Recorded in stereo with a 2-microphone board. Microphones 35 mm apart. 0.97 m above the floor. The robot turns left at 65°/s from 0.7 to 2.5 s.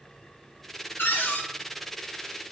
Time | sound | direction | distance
1.0 | a cupboard door | 85° left | 0.5 m